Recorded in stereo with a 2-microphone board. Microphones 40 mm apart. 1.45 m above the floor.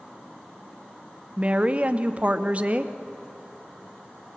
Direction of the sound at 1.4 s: 35° right (ahead or behind).